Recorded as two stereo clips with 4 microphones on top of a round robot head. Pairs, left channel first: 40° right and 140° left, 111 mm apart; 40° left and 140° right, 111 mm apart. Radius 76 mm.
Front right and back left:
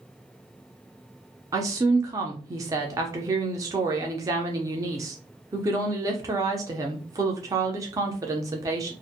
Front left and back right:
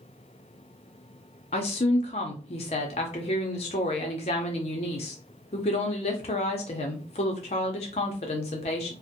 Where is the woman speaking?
80° left, 0.5 m.